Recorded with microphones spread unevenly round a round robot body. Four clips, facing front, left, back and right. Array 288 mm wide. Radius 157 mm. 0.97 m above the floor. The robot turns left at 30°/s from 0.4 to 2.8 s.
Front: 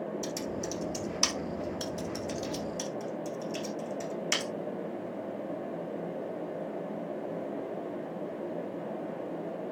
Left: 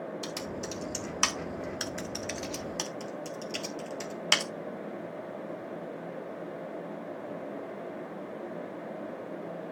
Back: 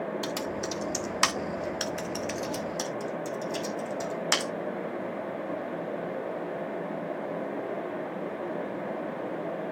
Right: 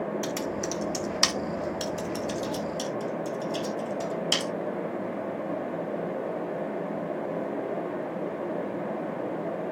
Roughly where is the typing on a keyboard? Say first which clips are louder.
Right 7 dB, back 3 dB; behind right.